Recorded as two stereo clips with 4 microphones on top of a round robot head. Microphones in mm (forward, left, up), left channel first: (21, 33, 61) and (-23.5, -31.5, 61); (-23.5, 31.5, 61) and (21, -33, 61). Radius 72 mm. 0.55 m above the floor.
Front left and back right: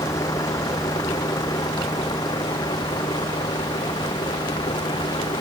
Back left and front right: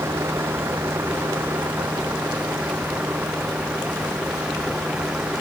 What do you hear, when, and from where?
0.0 s a vehicle: 5° left; by 5.4 s 25° left